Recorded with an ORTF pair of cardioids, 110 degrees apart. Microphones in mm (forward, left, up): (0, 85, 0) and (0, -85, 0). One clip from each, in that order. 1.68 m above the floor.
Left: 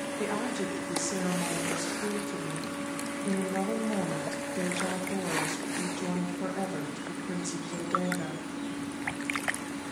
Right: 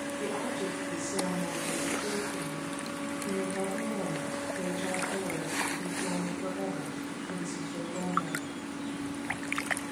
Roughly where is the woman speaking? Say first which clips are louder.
Left 2 dB; ahead left.